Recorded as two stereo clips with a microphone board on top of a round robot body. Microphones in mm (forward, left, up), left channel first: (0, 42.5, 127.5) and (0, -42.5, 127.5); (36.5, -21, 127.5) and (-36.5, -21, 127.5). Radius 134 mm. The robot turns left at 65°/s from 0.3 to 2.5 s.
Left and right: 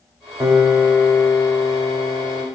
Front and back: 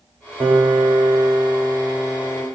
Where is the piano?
170° right, 2 m; by 2.5 s 55° left, 2 m.